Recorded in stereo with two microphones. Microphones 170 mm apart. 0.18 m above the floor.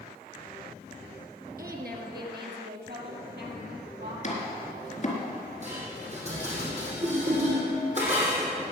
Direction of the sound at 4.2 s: 45° left (ahead or behind).